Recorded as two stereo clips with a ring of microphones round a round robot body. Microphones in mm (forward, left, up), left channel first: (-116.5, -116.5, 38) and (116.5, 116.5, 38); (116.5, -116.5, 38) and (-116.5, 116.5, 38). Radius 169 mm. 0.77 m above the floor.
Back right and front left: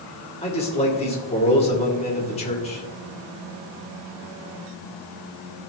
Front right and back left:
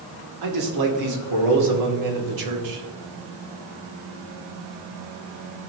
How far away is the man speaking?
About 2.5 m.